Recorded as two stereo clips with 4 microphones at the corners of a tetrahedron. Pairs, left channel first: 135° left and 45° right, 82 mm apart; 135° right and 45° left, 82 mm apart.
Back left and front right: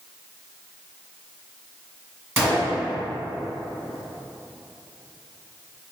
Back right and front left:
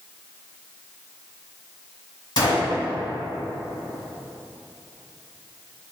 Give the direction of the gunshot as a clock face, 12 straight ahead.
4 o'clock.